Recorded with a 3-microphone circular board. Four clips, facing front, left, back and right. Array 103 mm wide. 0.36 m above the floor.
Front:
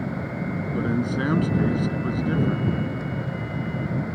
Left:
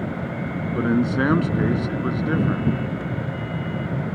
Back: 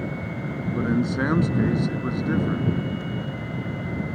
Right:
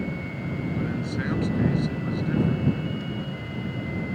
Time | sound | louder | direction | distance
0.8 | a man speaking | left 13 dB, back 2 dB | 105° left | ?